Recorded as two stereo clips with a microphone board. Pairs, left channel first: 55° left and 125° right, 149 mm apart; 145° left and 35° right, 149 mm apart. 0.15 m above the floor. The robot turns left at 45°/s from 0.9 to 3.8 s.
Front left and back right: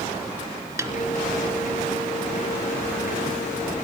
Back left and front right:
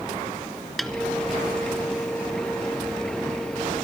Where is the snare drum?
125° right, 1.0 m; by 0.9 s 130° right, 1.0 m.